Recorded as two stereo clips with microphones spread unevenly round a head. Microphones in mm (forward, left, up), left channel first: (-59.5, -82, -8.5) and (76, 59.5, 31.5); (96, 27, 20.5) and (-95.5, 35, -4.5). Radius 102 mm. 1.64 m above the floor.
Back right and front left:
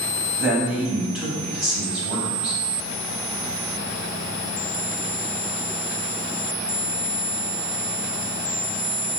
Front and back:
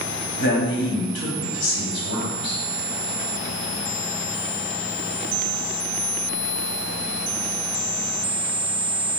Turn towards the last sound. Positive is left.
turn(degrees=-45)